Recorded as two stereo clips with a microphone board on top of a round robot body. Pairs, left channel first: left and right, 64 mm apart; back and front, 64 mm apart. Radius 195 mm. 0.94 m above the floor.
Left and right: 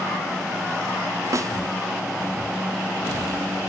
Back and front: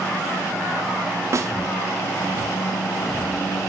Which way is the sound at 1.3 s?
45° right.